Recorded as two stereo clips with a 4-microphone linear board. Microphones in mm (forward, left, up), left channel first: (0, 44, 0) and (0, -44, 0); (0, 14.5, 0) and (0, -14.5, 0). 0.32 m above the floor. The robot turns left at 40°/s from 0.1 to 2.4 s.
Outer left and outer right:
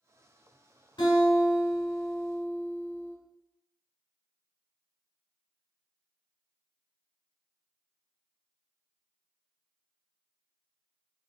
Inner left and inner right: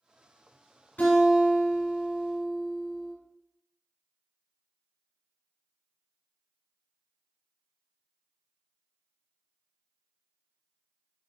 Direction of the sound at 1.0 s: 75° left.